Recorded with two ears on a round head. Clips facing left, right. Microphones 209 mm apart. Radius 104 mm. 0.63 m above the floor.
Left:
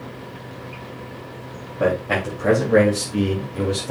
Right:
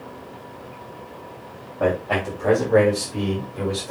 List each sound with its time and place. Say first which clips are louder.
1.8 s a man speaking: left 1 dB; 30° left (ahead or behind), 4 m; by 3.9 s 45° left (ahead or behind), 3.5 m